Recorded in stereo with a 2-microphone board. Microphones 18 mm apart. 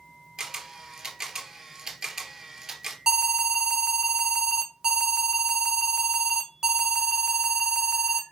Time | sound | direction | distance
0.4 | a camera shutter | 30° right (ahead or behind) | 2.5 m
3.1 | an alarm | 35° right (ahead or behind) | 1.7 m